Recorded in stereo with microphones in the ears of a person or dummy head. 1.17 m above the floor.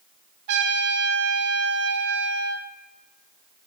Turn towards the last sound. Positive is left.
turn(degrees=-55)  # may be behind; listen again after turning